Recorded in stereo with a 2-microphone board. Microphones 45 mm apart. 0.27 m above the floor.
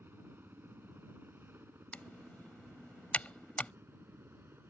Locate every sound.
0.0 s a helicopter: 50° right (ahead or behind); by 4.7 s 60° right (ahead or behind)
1.9 s typing on a keyboard: 35° left (ahead or behind)